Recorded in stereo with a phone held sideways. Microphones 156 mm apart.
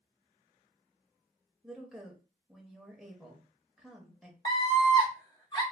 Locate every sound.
1.6 s a woman speaking: centre (ahead or behind), 0.6 m
4.5 s a scream: 30° left (ahead or behind), 1.2 m